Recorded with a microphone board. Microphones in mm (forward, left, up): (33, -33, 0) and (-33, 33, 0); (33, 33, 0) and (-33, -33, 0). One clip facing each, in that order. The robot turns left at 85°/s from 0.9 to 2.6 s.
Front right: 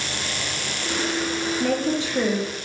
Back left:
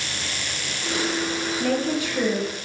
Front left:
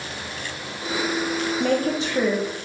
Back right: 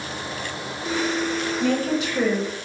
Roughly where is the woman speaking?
Ahead left.